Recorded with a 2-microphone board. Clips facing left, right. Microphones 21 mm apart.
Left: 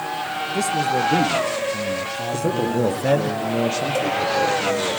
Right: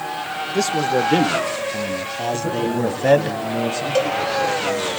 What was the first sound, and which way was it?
A man speaking, 50° right (ahead or behind).